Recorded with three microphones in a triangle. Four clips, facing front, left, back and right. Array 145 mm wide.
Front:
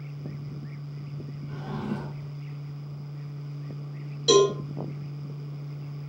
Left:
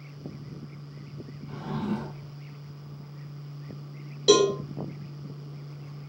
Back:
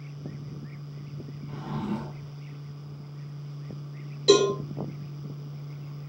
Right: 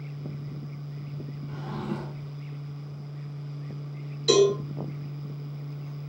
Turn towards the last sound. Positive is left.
turn(degrees=110)